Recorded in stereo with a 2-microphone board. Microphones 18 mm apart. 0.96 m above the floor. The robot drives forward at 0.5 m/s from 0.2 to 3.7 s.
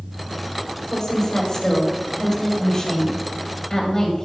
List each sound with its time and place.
0.9 s a woman speaking: 30° left (ahead or behind), 6 m; by 4.2 s 25° left (ahead or behind), 7 m